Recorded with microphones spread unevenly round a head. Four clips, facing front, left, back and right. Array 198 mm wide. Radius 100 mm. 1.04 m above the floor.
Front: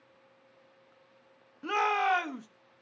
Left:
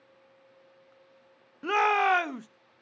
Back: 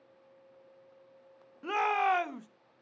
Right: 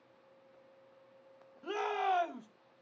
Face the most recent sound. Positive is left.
turn(degrees=75)